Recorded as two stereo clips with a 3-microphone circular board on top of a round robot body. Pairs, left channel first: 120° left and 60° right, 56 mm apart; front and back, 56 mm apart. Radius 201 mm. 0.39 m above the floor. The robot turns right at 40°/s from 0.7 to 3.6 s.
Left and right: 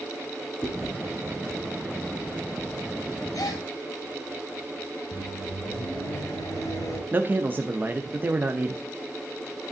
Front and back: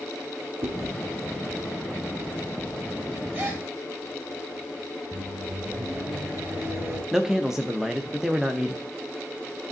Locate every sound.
0.6 s chewing: 170° right, 1.5 m; by 0.9 s 165° right, 1.5 m
3.3 s a gasp: 125° left, 2.5 m; by 3.6 s 135° left, 2.5 m
5.1 s a microwave: 125° left, 3 m
7.1 s a man speaking: 100° right, 1.0 m